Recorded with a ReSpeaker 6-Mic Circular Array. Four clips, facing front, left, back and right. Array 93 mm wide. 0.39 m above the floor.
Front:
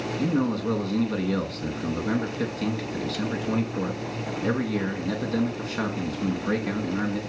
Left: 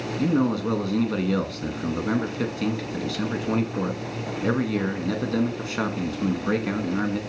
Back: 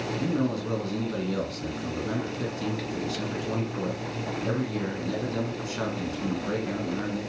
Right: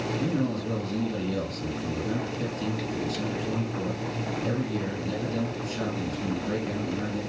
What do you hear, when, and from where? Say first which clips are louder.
0.2 s a man speaking: left 8 dB, front 3 dB; 70° left, 4 m